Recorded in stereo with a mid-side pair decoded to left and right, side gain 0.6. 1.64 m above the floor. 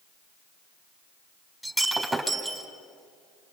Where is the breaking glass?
5° right, 4 m.